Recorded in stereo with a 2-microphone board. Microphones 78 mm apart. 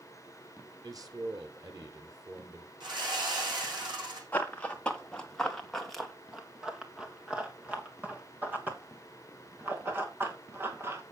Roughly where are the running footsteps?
Left.